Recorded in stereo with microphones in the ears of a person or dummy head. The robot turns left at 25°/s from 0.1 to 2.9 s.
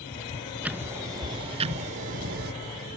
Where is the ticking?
5° right, 0.8 m; by 2.5 s 55° right, 0.8 m.